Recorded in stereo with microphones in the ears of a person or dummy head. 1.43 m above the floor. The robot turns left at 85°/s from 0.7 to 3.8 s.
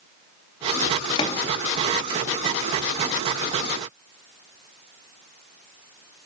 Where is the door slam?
30° left (ahead or behind), 2 m; by 1.5 s 5° left (ahead or behind), 2 m.